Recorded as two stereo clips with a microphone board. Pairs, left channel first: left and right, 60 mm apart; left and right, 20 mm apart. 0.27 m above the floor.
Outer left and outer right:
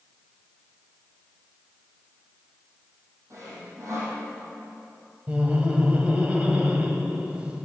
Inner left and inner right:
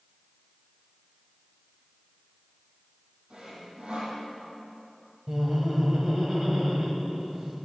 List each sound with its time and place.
3.3 s sawing: 55° right (ahead or behind), 5.5 m
5.3 s laughter: 20° right (ahead or behind), 1.8 m